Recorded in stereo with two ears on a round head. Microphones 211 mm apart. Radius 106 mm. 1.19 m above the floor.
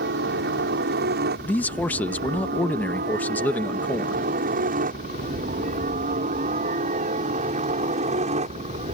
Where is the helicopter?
45° right (ahead or behind); by 8.9 s 30° right (ahead or behind).